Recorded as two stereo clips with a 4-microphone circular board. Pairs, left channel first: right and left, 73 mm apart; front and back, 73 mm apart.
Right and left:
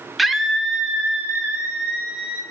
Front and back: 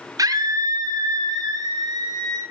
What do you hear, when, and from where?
0.2 s a scream: straight behind, 0.6 m; by 2.4 s 160° left, 1.7 m